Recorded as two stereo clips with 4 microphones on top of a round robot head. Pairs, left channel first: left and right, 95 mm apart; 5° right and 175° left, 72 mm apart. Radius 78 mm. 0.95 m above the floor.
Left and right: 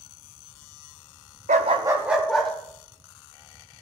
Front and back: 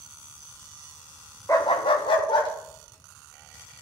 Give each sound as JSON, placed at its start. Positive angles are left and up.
{"t": 1.5, "sound": "a dog barking", "azimuth_deg": -75, "distance_m": 0.7}